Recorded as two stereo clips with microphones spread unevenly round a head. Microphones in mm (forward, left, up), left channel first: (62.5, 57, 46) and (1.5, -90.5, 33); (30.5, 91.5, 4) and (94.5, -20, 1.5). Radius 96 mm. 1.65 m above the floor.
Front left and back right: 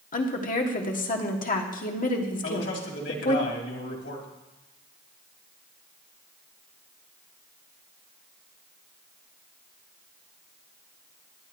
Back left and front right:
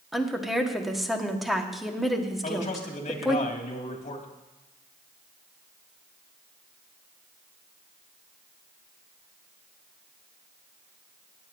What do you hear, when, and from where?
0.1 s a woman speaking: 30° left, 1.5 m
2.4 s a man speaking: 95° left, 2 m